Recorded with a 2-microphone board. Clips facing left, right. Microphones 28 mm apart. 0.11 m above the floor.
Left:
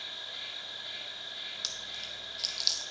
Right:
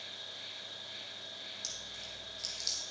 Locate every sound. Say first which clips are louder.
0.0 s an insect: left 5 dB; 75° left (ahead or behind), 2.0 m
1.6 s chewing: left 5 dB; 50° left (ahead or behind), 0.6 m